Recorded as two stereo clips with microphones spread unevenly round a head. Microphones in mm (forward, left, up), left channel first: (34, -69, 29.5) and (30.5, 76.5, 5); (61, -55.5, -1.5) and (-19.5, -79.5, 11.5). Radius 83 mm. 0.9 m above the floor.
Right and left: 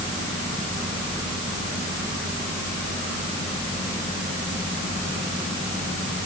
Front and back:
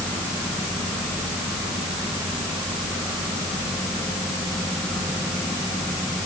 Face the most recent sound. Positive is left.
No sound to turn to.